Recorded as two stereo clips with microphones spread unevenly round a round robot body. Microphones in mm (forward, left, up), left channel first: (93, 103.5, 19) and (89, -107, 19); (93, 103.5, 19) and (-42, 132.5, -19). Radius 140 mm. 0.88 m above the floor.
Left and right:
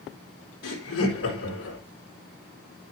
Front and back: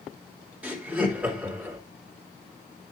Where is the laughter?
95° left, 3.5 m.